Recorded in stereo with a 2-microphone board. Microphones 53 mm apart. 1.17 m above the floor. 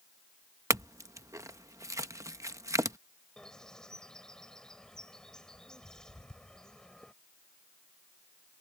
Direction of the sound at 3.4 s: 10° left (ahead or behind).